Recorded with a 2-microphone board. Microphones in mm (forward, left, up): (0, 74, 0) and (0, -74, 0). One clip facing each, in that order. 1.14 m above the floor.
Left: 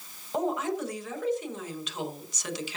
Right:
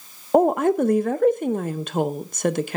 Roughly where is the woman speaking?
Right.